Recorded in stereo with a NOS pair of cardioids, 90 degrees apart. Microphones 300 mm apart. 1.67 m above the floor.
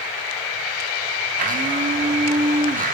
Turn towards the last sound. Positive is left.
turn(degrees=-25)